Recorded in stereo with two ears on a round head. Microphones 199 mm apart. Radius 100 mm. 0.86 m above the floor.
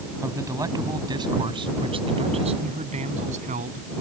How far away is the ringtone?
I don't hear a ringtone.